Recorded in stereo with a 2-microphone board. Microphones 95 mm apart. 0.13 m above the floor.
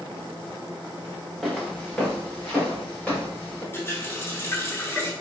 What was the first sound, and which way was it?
Footsteps, centre (ahead or behind).